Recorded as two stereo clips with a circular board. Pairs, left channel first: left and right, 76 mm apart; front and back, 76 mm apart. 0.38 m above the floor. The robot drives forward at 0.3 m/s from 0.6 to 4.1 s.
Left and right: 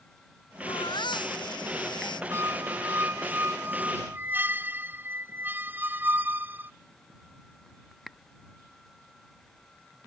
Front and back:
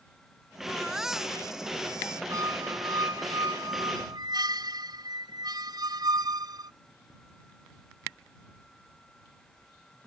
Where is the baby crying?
95° left; by 2.2 s 100° left.